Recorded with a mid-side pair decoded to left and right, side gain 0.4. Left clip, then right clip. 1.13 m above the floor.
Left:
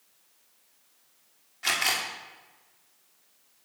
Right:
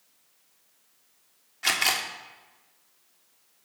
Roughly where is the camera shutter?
Ahead right.